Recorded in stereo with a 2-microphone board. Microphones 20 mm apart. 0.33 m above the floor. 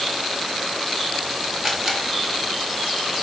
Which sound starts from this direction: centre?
A camera shutter, at 1.6 s.